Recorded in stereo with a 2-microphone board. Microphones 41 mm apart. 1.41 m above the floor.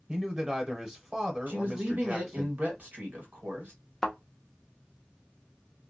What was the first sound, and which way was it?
A man speaking, 20° right (ahead or behind).